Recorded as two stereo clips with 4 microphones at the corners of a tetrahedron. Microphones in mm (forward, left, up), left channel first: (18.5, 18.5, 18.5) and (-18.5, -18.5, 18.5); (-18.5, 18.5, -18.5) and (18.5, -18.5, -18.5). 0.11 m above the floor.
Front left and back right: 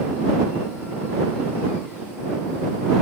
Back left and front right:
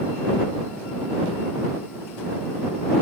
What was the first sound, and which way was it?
Only background noise.